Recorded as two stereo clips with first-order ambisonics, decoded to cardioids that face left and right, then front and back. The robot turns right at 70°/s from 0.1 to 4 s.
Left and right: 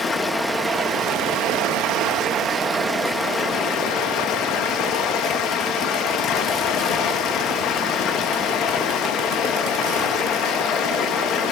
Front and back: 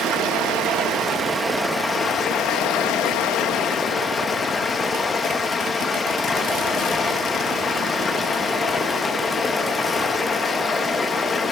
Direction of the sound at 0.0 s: 155° left.